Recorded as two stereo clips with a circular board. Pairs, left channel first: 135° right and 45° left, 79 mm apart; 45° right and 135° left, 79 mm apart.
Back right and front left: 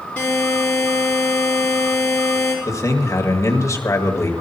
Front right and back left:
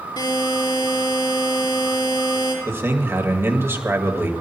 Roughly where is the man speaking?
Behind.